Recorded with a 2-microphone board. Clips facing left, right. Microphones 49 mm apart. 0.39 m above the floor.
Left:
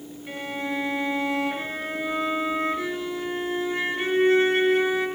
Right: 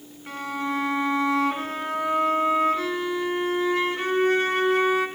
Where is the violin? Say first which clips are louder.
Right 2 dB; 70° right (ahead or behind), 3 m.